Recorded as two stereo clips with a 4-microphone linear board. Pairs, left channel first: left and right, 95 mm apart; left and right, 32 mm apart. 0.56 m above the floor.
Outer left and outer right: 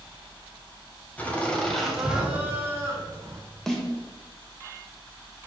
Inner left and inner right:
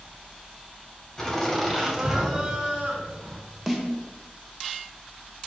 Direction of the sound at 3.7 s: 5° left (ahead or behind).